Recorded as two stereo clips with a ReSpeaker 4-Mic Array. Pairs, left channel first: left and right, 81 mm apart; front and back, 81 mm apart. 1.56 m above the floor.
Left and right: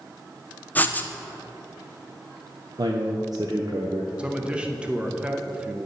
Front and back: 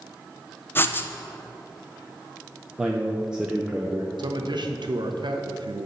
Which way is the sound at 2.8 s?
100° right.